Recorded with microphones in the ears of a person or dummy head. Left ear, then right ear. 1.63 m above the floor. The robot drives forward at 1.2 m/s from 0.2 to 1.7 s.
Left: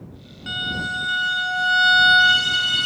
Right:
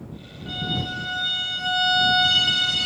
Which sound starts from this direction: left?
A violin, at 0.5 s.